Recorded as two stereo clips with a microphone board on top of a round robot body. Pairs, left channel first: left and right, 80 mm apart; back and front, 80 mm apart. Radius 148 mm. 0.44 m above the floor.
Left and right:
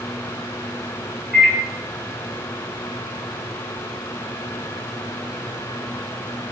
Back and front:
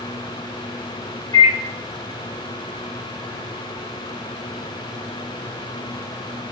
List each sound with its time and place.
1.3 s a microwave: 170° right, 1.8 m